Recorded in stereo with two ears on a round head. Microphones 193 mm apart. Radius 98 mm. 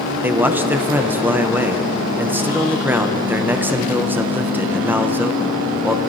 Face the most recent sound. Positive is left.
turn(degrees=-10)  # may be behind; listen again after turning